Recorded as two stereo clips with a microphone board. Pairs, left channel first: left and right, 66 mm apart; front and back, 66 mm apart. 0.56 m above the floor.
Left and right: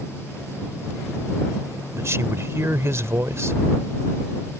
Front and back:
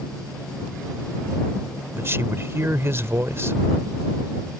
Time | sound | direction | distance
1.9 | a man speaking | 130° right | ?